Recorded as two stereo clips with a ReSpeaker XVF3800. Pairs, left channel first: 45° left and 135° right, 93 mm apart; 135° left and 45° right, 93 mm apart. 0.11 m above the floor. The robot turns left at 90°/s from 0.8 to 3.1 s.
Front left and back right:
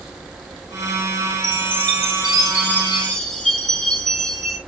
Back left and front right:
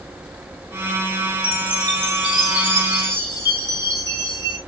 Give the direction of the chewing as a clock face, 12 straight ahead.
I don't hear chewing.